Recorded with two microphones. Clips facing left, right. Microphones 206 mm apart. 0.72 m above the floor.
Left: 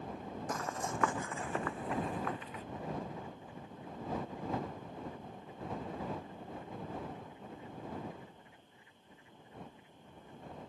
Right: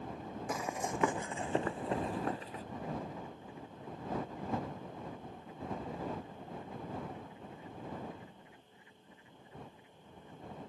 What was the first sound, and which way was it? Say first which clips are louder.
Running footsteps: right 2 dB; 5° right (ahead or behind).